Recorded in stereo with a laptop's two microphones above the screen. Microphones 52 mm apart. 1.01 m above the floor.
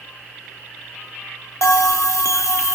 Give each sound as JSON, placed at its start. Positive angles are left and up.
{"t": 1.6, "sound": "a bell", "side_deg": 70, "distance_m": 1.2}